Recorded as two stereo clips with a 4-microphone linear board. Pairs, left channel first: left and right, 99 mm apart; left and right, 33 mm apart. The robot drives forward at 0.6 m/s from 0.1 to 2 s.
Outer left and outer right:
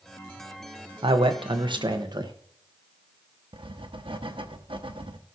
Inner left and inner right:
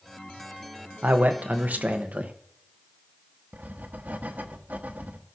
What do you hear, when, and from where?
1.0 s a man speaking: 60° right (ahead or behind), 0.9 m; by 2.3 s 50° right (ahead or behind), 1.1 m
3.5 s writing: 65° right (ahead or behind), 0.9 m